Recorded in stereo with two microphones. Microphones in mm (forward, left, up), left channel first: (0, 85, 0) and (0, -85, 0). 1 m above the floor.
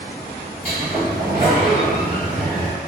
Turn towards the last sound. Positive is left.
turn(degrees=-45)  # may be behind; listen again after turning